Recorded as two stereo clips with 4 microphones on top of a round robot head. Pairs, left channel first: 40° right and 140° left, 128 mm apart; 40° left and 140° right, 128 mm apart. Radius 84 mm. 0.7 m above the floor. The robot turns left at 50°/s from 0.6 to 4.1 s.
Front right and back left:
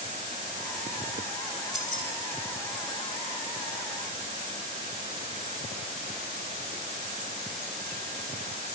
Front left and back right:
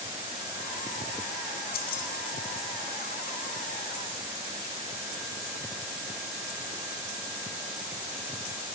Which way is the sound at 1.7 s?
50° left.